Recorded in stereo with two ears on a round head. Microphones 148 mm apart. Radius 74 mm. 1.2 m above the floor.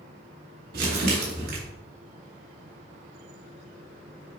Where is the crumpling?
65° right (ahead or behind), 2.5 m.